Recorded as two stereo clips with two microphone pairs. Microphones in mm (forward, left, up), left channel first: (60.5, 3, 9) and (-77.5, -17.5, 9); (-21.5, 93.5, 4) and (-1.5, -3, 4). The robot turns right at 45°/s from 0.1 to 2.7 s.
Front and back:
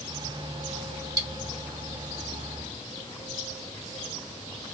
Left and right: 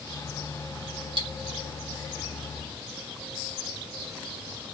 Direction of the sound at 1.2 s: 105° right.